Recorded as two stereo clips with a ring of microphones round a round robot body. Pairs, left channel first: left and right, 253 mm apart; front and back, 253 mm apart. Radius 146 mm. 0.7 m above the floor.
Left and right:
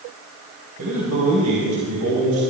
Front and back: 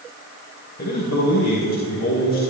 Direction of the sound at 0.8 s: 50° right.